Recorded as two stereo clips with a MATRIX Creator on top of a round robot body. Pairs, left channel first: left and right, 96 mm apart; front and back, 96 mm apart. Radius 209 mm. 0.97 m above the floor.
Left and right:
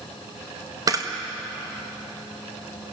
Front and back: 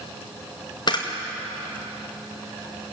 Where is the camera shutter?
40° right, 2 m.